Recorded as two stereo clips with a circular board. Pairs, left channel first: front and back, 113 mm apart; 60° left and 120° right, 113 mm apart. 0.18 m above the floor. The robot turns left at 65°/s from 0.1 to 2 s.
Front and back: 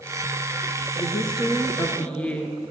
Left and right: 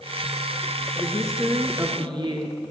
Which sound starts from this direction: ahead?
A woman speaking, at 1.0 s.